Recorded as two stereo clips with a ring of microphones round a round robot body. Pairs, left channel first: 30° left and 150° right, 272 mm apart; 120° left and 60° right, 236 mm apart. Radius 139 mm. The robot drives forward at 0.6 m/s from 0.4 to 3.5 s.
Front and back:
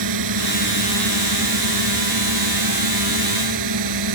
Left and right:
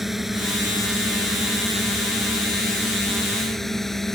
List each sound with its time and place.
0.0 s a drone: 150° right